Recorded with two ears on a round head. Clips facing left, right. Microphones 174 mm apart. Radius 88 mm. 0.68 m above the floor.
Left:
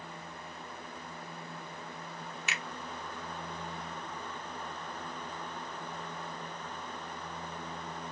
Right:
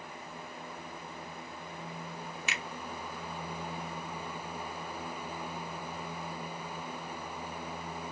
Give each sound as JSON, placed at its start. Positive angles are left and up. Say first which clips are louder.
{"t": 2.5, "sound": "a finger snap", "louder": "even", "side_deg": -70, "distance_m": 1.1}